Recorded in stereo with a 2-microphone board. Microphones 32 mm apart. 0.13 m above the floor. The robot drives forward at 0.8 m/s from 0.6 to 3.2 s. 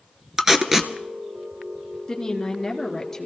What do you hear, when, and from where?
0.4 s tape being pulled: 10° right (ahead or behind), 0.9 m; by 0.9 s 5° right (ahead or behind), 1.1 m
2.1 s a woman speaking: 20° left (ahead or behind), 1.9 m; by 3.3 s 15° left (ahead or behind), 2.5 m